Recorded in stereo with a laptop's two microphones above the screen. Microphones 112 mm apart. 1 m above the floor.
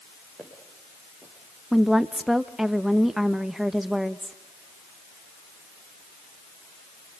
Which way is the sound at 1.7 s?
5° right (ahead or behind).